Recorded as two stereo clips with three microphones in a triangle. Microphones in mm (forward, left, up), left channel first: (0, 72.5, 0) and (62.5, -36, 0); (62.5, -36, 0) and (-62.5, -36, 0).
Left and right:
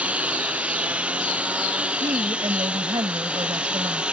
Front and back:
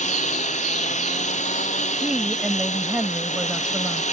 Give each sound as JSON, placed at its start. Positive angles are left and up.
{"t": 0.0, "sound": "a lawn mower", "azimuth_deg": 20}
{"t": 2.0, "sound": "a woman speaking", "azimuth_deg": -100}